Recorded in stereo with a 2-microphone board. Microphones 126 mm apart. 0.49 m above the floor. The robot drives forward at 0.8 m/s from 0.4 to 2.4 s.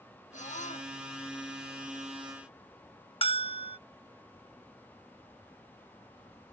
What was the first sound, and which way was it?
A scream, 75° left (ahead or behind).